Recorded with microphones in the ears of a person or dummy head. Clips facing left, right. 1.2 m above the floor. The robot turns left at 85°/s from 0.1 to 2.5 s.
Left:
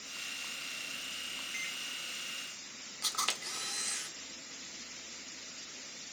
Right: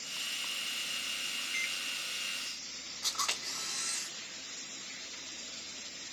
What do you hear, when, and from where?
1.5 s a microwave: 40° right (ahead or behind), 1.4 m; by 1.8 s 60° right (ahead or behind), 1.4 m
3.0 s a camera shutter: 55° left (ahead or behind), 1.3 m